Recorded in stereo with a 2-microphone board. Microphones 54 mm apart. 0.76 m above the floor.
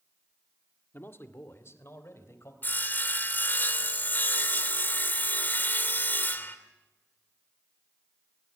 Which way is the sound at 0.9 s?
45° left (ahead or behind).